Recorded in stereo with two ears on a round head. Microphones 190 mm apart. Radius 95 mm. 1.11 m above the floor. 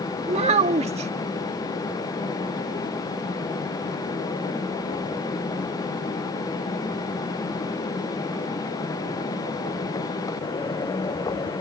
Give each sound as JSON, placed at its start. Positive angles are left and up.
{"t": 0.3, "sound": "a child speaking", "side_deg": -30}